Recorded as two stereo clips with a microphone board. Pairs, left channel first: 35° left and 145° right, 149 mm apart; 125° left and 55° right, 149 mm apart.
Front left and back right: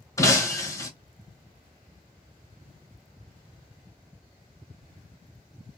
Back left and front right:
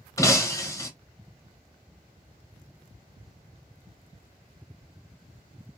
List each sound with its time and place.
0.2 s breaking glass: 80° left, 0.8 m